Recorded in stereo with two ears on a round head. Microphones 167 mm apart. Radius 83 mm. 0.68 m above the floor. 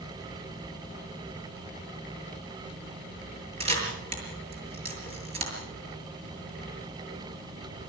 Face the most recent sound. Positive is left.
turn(degrees=-35)  # may be behind; listen again after turning